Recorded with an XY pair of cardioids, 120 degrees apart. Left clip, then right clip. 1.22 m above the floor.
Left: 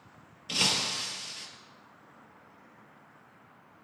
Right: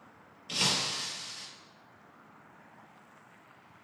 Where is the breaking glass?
25° left, 3.5 m.